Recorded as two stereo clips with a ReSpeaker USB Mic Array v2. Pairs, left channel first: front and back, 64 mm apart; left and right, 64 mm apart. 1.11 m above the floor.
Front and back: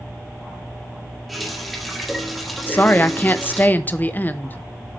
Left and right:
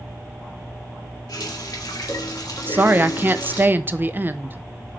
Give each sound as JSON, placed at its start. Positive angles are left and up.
{"t": 1.3, "sound": "a running tap", "azimuth_deg": 90, "distance_m": 1.7}
{"t": 2.7, "sound": "a woman speaking", "azimuth_deg": -50, "distance_m": 0.5}